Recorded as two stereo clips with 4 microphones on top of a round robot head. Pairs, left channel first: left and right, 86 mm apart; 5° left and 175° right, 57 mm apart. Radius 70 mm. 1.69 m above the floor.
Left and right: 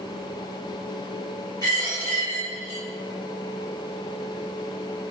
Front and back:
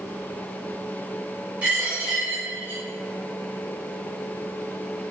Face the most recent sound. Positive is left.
turn(degrees=135)